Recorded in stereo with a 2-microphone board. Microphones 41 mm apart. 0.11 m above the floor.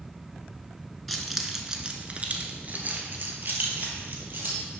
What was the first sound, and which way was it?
Keys jangling, 5° left (ahead or behind).